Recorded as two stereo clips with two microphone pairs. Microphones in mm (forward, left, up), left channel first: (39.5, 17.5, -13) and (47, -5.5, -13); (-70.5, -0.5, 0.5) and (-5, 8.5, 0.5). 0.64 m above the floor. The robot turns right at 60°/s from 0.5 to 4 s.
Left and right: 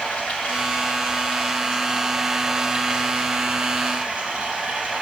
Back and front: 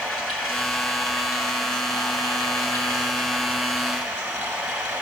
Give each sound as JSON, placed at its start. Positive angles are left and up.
{"t": 0.0, "sound": "running water", "azimuth_deg": 95, "distance_m": 7.0}